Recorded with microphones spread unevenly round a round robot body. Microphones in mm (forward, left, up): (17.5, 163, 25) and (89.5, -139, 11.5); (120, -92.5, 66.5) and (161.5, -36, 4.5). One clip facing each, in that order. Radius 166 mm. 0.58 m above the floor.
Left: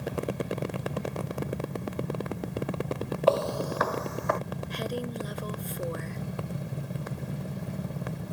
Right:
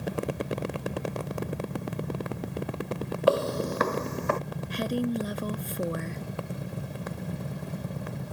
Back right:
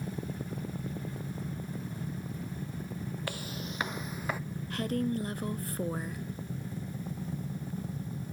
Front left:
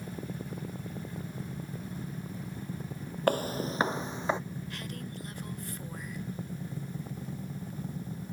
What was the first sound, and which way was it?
Footsteps, 5° right.